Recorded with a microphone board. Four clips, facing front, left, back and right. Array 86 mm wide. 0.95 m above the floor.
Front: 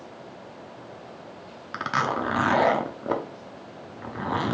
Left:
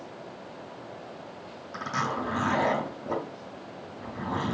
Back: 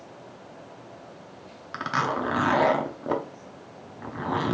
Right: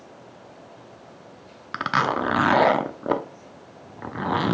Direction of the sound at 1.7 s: 85° right.